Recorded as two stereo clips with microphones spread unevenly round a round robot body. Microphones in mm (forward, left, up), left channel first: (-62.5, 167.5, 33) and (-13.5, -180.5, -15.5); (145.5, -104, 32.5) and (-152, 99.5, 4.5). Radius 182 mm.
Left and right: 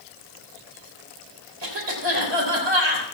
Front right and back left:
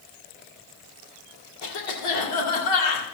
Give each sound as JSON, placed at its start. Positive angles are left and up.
{"t": 1.6, "sound": "a cough", "azimuth_deg": -35, "distance_m": 3.0}